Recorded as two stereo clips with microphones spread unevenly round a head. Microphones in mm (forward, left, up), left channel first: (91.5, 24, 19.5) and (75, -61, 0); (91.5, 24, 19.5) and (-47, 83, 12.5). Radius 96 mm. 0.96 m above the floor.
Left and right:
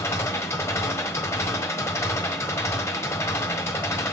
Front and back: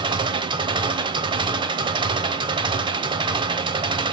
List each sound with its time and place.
0.0 s an engine running: 110° left, 0.9 m